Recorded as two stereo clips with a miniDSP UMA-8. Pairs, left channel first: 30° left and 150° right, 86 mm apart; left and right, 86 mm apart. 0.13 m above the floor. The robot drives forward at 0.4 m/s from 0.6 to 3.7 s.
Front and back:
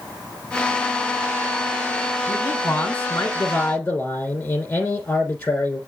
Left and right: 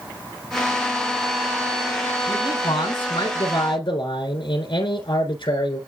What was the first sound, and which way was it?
A man speaking, 100° left.